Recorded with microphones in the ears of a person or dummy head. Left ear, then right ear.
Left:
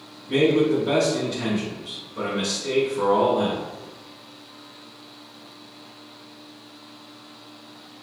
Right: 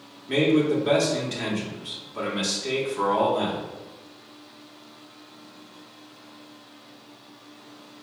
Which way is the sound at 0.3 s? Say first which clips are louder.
Left 2 dB; 50° right (ahead or behind).